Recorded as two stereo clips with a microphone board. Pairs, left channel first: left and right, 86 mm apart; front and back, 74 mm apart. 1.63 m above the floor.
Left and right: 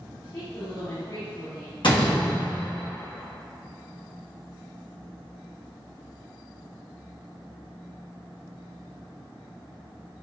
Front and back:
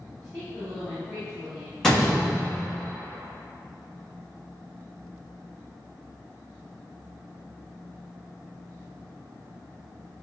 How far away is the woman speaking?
About 1.8 m.